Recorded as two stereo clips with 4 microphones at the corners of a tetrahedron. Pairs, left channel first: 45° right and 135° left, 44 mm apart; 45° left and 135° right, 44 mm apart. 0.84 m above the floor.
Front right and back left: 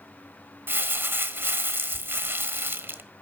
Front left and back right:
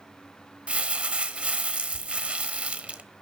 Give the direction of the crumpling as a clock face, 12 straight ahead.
7 o'clock.